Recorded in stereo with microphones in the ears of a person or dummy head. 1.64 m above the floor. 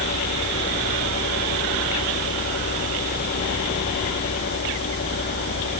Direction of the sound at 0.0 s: 50° left (ahead or behind).